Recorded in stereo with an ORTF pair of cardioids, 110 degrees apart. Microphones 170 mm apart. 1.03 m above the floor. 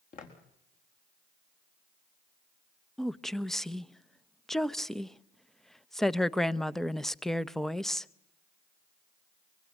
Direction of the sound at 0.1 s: 55° left.